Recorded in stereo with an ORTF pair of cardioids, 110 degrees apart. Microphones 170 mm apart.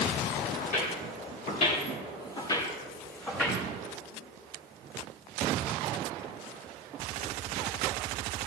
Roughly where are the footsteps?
Ahead left.